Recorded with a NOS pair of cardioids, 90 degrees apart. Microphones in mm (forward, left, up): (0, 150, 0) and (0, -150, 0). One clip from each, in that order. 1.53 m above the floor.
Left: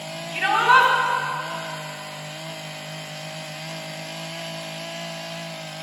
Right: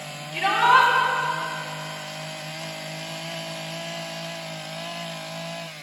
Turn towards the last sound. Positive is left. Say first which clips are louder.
# left 1 dB
turn(degrees=40)